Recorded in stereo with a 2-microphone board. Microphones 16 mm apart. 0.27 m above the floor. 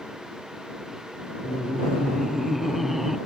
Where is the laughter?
5° left (ahead or behind); by 3.2 s 15° right (ahead or behind).